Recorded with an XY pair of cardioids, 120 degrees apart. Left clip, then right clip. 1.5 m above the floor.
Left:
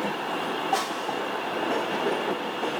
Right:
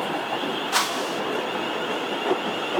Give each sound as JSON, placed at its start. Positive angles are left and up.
{"t": 0.7, "sound": "a whoosh", "azimuth_deg": -60, "distance_m": 1.4}